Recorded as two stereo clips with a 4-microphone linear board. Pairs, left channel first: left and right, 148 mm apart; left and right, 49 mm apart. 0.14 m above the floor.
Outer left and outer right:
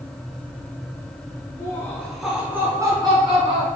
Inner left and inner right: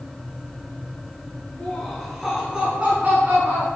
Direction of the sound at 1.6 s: 20° left (ahead or behind).